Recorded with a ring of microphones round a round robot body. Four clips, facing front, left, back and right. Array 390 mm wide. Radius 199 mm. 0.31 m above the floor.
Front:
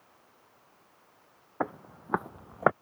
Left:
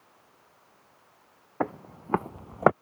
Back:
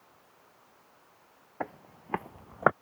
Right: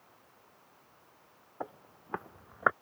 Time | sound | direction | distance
1.6 | footsteps | 70° left | ?